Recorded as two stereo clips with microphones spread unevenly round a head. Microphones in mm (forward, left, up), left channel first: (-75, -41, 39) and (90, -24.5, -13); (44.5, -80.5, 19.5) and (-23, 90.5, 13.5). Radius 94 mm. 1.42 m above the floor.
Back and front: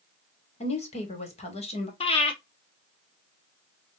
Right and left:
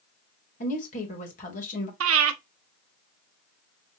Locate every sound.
0.6 s a woman speaking: 120° right, 2 m
2.0 s breathing: 130° left, 0.8 m